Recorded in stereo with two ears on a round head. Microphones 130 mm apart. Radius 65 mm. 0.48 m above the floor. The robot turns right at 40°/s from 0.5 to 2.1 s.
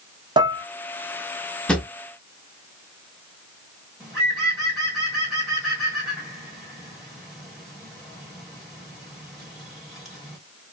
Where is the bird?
Centre (ahead or behind), 1.3 m.